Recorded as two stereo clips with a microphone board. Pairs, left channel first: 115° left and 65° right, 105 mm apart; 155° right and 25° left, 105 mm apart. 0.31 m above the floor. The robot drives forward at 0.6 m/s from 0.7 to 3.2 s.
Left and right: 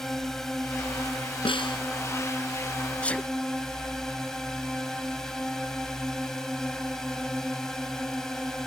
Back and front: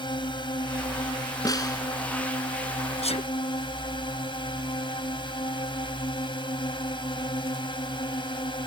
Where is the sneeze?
170° right.